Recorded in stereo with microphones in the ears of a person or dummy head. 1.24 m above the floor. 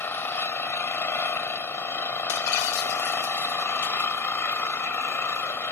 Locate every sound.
0.0 s an engine running: 15° left (ahead or behind)
2.3 s breaking glass: 65° left (ahead or behind)